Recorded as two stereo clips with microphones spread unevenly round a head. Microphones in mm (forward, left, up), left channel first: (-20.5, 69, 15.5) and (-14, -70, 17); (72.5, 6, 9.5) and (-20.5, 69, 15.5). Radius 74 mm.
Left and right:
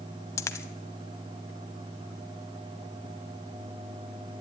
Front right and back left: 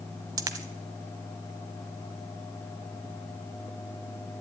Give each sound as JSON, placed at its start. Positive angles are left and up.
{"t": 0.4, "sound": "a dropped coin", "azimuth_deg": 145, "distance_m": 0.8}